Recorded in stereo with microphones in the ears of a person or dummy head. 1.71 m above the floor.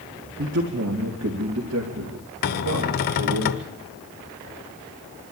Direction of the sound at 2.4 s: 50° left (ahead or behind).